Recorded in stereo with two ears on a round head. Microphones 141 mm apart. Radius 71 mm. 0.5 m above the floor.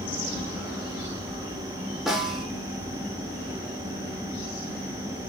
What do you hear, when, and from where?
2.1 s a snare drum: centre (ahead or behind), 7.5 m